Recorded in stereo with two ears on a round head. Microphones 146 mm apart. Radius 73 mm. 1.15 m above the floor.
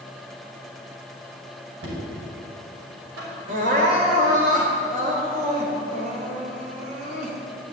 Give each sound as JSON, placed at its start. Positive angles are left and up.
{"t": 1.8, "sound": "knocking", "side_deg": -80, "distance_m": 5.5}
{"t": 3.5, "sound": "crying", "side_deg": -55, "distance_m": 3.0}